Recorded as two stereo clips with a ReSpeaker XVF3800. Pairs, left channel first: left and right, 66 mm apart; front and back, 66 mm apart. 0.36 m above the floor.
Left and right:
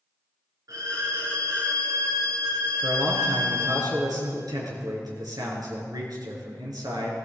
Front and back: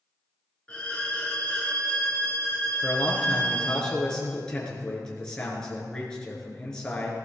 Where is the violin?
70° right, 4.5 m.